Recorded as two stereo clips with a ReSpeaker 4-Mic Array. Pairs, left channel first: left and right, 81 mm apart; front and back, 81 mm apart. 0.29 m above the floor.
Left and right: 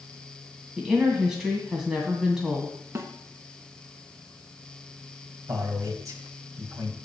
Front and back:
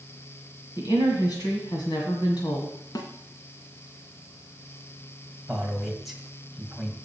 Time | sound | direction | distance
0.8 | a woman speaking | 10° right | 1.9 m
3.0 | a snare drum | 35° right | 1.0 m
5.5 | a man speaking | 90° right | 1.7 m